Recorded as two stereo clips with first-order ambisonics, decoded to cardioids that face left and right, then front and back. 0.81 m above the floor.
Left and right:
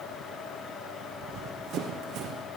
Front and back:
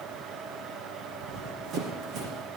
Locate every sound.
1.2 s running footsteps: 130° right, 3 m; by 2.4 s 135° right, 3.5 m